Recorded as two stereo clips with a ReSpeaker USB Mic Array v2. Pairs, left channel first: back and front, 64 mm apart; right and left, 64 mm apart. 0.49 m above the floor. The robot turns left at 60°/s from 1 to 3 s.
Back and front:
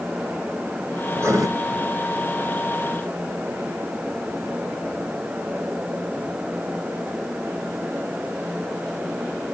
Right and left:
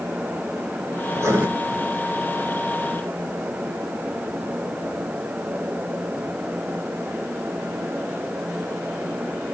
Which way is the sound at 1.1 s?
50° left.